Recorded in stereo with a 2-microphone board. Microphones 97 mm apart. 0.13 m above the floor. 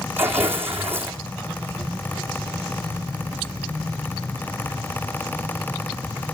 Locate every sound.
0.2 s tearing paper: 25° right (ahead or behind), 1.7 m